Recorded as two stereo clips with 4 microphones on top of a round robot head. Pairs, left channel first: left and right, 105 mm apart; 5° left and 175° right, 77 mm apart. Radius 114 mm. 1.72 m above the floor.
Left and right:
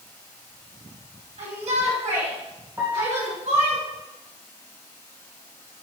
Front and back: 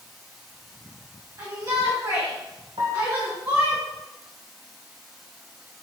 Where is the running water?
95° left, 3 m.